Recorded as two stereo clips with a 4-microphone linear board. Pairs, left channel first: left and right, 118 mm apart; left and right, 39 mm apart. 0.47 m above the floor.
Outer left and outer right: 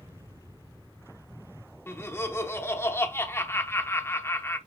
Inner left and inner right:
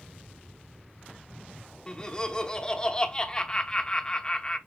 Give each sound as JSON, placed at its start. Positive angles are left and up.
{"t": 1.9, "sound": "laughter", "side_deg": 20, "distance_m": 0.7}